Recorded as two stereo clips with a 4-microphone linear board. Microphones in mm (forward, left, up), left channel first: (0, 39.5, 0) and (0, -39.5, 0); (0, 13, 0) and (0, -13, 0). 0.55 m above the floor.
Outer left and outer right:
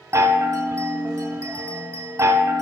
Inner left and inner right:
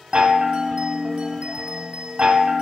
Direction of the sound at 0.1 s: 35° right (ahead or behind).